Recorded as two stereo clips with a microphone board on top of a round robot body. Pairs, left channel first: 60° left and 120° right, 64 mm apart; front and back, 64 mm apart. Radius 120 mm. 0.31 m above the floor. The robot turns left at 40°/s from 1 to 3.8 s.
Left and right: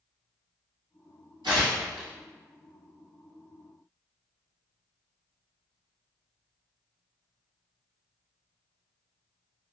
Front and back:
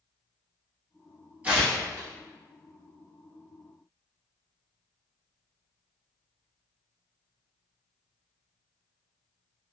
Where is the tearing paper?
115° right, 1.5 m; by 2.1 s 140° right, 1.5 m.